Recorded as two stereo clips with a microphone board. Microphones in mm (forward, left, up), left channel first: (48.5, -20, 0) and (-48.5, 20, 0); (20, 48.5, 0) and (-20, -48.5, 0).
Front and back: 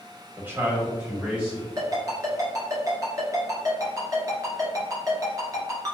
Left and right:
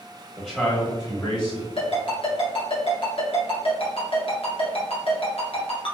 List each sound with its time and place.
0.4 s a man speaking: 175° left, 1.4 m; by 1.7 s 75° left, 2 m
1.8 s a ringtone: 100° left, 1.5 m